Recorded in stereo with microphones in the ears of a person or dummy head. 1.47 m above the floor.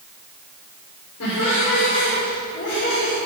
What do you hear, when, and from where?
1.2 s laughter: 80° left, 6 m